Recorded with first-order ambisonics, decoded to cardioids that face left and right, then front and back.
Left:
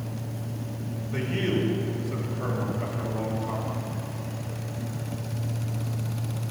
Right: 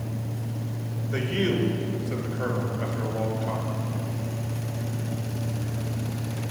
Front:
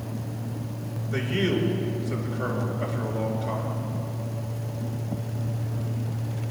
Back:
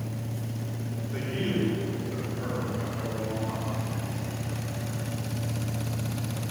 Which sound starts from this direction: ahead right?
A man speaking, at 1.1 s.